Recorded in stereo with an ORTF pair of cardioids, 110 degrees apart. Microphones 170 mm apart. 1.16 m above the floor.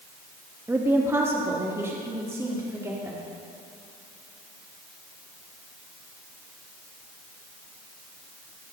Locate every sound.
0.7 s a woman speaking: 15° right, 1.7 m